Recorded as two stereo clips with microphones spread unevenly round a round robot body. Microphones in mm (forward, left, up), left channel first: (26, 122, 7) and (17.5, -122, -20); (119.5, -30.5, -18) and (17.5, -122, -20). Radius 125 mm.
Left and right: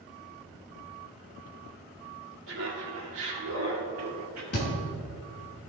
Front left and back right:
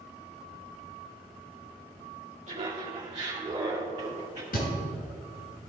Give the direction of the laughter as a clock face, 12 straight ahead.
4 o'clock.